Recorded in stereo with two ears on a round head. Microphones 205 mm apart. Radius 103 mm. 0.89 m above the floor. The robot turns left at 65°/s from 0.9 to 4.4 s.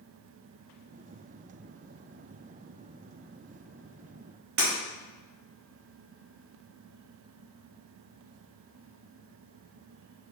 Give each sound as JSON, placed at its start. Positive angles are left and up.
{"t": 4.6, "sound": "breaking glass", "side_deg": -50, "distance_m": 1.7}